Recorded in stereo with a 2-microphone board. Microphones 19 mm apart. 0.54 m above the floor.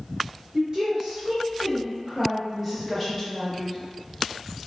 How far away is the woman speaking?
About 1.6 m.